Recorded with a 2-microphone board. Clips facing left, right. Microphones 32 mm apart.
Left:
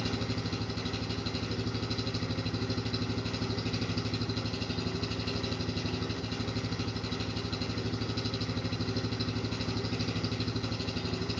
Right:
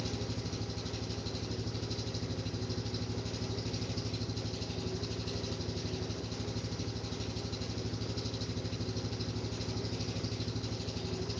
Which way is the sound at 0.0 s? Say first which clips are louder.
Left 5 dB; 55° left (ahead or behind).